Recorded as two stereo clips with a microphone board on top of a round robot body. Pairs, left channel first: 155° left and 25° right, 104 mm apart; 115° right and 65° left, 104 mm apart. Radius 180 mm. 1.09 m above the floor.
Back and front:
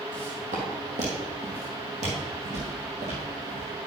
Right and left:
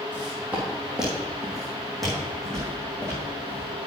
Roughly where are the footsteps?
Ahead.